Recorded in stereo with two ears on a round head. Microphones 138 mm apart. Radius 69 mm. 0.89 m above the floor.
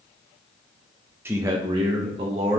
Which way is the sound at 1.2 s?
15° right (ahead or behind).